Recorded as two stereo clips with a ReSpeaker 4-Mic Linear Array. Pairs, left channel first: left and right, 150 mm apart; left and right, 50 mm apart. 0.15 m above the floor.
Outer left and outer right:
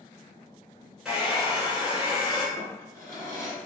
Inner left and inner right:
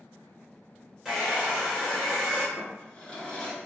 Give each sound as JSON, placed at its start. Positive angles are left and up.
{"t": 1.1, "sound": "a hair dryer", "side_deg": -5, "distance_m": 1.1}
{"t": 2.6, "sound": "a drawer", "side_deg": 20, "distance_m": 0.9}